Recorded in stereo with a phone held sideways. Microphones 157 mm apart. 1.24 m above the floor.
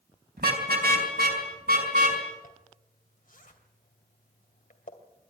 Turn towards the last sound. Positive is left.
turn(degrees=60)  # may be behind; listen again after turning